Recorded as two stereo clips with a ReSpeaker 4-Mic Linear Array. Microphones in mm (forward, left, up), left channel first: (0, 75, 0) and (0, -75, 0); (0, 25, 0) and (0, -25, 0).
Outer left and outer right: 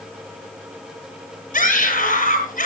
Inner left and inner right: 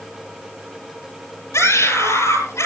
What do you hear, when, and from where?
1.5 s a scream: 60° left (ahead or behind), 10 m